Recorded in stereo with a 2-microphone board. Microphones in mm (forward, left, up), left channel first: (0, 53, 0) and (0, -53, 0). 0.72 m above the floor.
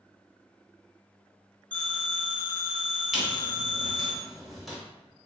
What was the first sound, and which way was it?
A phone ringing, 10° left (ahead or behind).